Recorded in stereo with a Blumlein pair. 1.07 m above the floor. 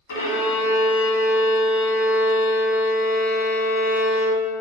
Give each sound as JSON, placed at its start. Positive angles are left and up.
{"t": 0.1, "sound": "a violin", "azimuth_deg": 60, "distance_m": 0.8}